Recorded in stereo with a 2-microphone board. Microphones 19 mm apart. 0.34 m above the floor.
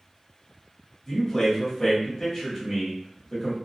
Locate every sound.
1.1 s a man speaking: 15° left (ahead or behind), 1.2 m